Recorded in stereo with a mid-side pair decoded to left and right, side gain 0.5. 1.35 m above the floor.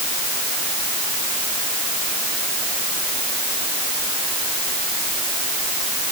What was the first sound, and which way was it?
Only background noise.